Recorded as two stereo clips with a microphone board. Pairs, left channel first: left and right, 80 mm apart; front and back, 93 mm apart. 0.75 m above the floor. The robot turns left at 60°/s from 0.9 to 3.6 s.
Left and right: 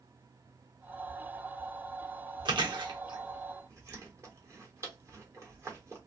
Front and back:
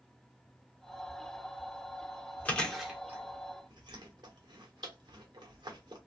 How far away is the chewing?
About 1.1 m.